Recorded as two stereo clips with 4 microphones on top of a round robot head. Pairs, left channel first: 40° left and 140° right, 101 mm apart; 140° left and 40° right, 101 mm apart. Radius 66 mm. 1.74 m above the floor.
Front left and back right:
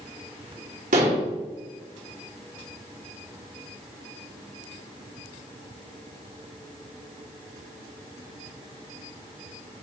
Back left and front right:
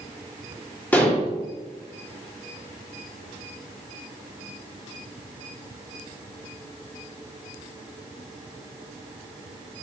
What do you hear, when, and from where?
0.9 s dishes clattering: 145° right, 2.5 m